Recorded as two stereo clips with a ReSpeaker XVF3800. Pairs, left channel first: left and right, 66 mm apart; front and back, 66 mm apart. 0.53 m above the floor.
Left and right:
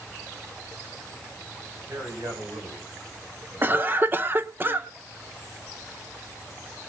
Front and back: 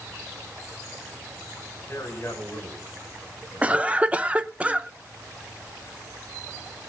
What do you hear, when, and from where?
1.9 s a man speaking: 55° right, 4 m
3.6 s a cough: 120° right, 0.8 m